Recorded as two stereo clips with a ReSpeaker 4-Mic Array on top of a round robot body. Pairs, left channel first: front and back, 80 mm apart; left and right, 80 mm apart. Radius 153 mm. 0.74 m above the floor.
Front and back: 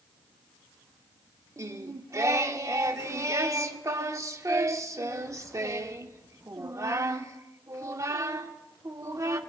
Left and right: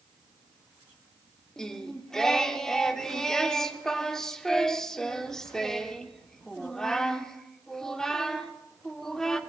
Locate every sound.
1.6 s singing: 170° left, 1.2 m